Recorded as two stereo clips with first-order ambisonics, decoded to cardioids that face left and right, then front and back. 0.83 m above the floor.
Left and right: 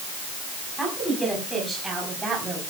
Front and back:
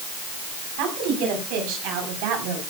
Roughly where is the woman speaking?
Behind.